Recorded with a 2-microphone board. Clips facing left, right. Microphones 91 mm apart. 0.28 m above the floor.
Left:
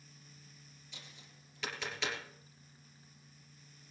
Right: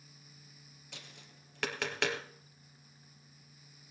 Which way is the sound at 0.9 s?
70° right (ahead or behind).